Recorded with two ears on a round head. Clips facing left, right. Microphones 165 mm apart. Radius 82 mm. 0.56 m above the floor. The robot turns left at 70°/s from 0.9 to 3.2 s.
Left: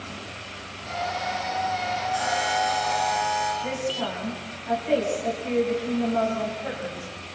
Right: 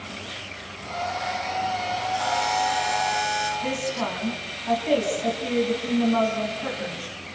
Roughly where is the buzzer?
Ahead left.